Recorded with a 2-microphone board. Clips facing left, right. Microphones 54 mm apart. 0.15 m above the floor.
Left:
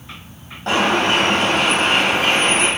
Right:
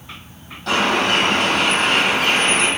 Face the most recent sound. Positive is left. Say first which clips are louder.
# left 1 dB
turn(degrees=30)  # may be behind; listen again after turning